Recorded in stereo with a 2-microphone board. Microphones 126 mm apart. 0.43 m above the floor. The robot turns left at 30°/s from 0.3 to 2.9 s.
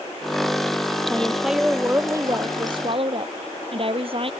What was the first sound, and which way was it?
A woman speaking, 10° left.